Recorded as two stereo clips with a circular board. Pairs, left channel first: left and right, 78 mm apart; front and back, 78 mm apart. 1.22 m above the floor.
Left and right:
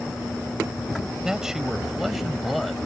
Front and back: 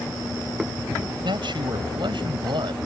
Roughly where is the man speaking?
Behind.